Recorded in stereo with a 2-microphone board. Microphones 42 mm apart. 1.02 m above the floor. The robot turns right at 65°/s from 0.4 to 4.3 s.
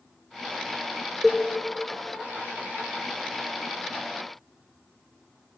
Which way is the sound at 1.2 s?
Centre (ahead or behind).